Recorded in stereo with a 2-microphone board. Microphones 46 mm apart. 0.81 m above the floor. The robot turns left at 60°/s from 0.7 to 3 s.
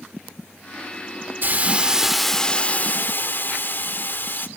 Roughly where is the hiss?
Behind right.